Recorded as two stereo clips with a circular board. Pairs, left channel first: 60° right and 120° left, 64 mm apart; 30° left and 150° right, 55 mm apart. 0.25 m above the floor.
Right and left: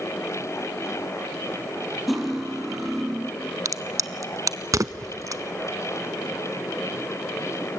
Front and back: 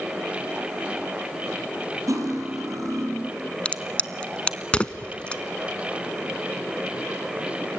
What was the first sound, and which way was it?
Cutlery clinking, 150° right.